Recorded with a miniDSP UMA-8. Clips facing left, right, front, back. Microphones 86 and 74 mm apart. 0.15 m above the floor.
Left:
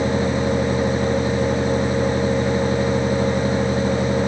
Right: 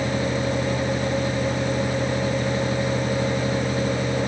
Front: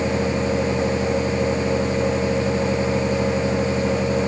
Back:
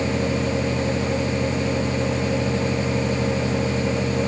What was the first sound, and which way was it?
Only background noise.